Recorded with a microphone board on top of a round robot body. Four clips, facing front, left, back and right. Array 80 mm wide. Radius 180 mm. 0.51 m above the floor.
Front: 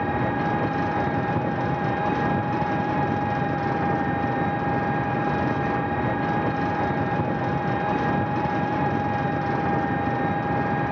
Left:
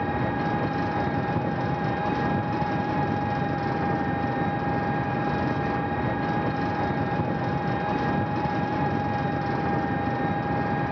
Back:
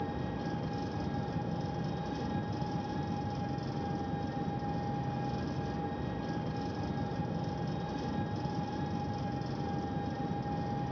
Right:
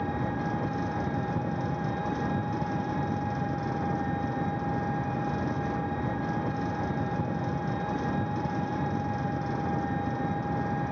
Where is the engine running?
20° left, 0.8 m.